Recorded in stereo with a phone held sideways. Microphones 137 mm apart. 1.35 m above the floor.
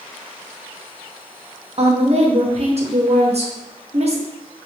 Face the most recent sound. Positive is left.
turn(degrees=-50)  # may be behind; listen again after turning